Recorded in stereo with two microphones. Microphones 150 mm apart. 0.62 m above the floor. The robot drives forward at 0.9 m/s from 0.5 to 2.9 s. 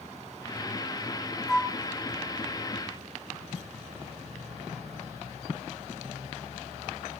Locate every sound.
1.5 s a flute: 5° left (ahead or behind), 1.9 m; by 1.8 s centre (ahead or behind), 2 m